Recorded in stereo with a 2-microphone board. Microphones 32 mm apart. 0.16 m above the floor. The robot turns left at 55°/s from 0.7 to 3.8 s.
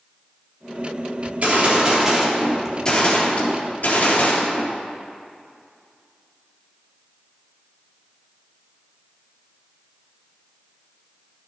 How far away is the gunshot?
About 3 m.